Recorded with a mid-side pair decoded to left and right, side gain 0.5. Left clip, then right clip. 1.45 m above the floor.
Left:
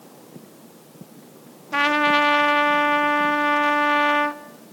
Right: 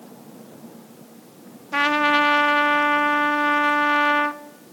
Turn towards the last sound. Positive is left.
turn(degrees=0)